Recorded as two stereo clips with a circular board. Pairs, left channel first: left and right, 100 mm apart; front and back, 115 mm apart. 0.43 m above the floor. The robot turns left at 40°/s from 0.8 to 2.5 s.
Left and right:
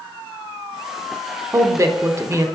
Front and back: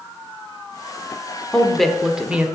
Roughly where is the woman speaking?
Right.